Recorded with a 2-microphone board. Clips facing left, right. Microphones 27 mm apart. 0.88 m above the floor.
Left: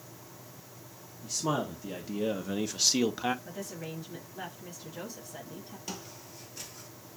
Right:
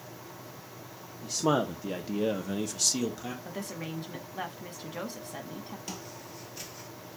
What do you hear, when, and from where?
1.2 s a man speaking: 45° right (ahead or behind), 1.0 m; by 3.4 s 45° left (ahead or behind), 0.7 m
3.5 s a woman speaking: 55° right (ahead or behind), 1.7 m
5.9 s footsteps: centre (ahead or behind), 1.0 m; by 6.9 s 15° right (ahead or behind), 0.8 m